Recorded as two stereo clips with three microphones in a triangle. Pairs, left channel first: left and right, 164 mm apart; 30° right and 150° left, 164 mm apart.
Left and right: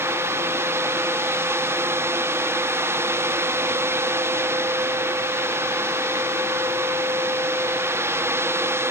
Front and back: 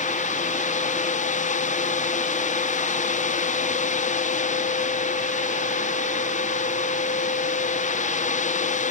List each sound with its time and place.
Only background noise.